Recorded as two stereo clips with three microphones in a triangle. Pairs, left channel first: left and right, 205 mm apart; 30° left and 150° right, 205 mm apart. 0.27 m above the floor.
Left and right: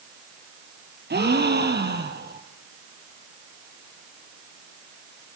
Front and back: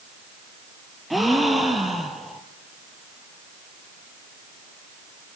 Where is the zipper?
No zipper in this recording.